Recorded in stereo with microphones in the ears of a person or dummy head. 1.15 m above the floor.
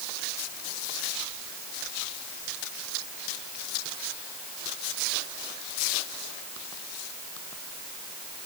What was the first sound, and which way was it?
Only background noise.